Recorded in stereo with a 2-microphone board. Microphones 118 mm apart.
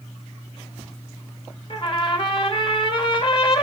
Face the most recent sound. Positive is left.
turn(degrees=45)  # may be behind; listen again after turning